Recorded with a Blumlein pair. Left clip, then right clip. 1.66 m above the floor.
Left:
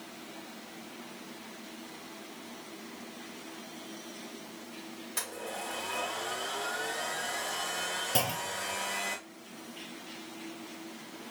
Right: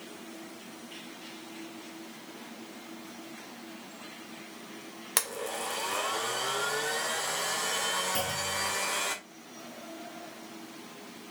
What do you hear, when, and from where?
5.2 s a blender: 50° right, 1.0 m
8.2 s a clunk: 25° left, 0.6 m